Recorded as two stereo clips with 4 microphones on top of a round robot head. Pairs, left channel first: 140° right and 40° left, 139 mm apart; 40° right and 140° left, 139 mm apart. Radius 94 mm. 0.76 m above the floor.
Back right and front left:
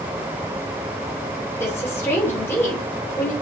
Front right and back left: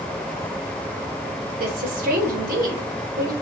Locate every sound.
1.6 s a woman speaking: 145° left, 3.5 m